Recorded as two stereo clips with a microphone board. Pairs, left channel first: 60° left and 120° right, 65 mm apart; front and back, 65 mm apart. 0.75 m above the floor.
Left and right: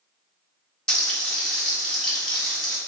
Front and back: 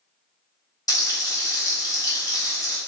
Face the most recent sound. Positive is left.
turn(degrees=-15)